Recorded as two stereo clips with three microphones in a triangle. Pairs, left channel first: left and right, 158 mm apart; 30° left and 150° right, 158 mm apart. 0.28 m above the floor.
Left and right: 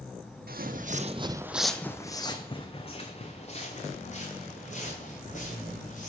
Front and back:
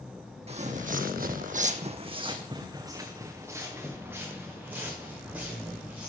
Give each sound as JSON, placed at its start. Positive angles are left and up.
{"t": 0.5, "sound": "footsteps", "azimuth_deg": -100, "distance_m": 0.8}